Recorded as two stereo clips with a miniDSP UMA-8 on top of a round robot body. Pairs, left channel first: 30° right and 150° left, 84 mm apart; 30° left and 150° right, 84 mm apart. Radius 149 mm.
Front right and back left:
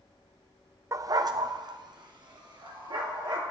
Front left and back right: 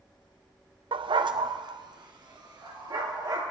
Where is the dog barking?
160° right, 0.5 m; by 3.4 s 175° left, 3.5 m.